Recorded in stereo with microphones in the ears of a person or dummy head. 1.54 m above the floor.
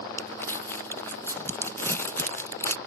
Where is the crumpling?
15° left (ahead or behind).